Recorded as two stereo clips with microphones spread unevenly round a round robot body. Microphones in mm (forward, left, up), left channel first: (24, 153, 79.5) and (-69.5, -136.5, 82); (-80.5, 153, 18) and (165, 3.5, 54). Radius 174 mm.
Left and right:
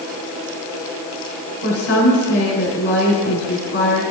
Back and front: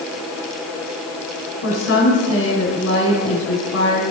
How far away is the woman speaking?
About 3 m.